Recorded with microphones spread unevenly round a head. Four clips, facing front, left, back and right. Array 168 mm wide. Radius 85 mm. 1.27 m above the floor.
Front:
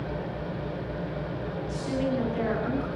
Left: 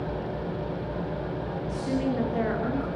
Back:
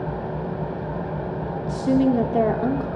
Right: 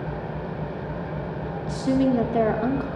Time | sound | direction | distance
0.0 | an engine running | 175° right | 9 m
1.7 | a woman speaking | 145° right | 3 m